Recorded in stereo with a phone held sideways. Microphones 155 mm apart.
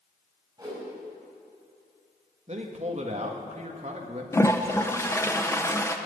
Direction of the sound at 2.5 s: 45° right (ahead or behind).